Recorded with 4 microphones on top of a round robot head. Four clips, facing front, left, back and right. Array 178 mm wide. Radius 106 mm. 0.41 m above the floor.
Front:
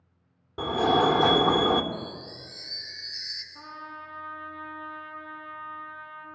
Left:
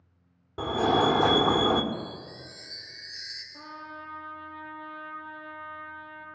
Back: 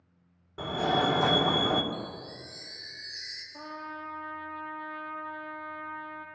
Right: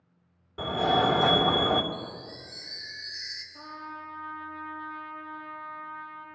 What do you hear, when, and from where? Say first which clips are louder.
0.6 s a fire alarm: left 1 dB, front 5 dB; 50° left, 2 m
1.9 s a chime: left 2 dB, front 1 dB; 75° left, 5 m
3.5 s a trumpet: right 1 dB, back 2 dB; 140° left, 7.5 m